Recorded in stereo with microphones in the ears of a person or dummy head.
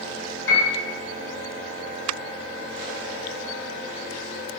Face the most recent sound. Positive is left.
turn(degrees=80)